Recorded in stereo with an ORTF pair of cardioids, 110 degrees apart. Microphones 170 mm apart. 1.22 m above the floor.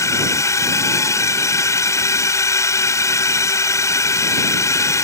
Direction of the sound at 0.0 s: 20° left.